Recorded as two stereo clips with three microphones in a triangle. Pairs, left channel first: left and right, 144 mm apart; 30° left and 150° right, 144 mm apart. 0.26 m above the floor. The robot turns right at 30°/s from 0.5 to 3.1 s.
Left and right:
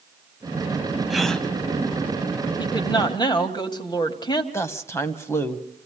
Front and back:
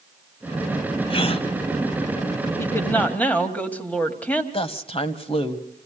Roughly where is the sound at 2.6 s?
Left.